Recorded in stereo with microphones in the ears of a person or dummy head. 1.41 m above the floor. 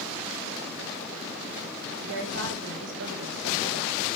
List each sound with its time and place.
2.0 s a woman speaking: 75° right (ahead or behind), 2.5 m